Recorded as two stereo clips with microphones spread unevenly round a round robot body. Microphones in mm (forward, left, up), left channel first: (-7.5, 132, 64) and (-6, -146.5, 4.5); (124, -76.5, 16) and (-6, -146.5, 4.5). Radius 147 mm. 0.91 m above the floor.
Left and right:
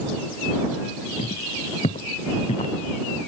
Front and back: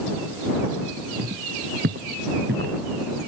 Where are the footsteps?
160° left.